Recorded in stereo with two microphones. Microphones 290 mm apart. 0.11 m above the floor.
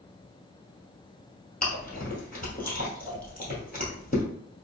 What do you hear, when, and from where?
1.6 s chewing: 30° left (ahead or behind), 1.8 m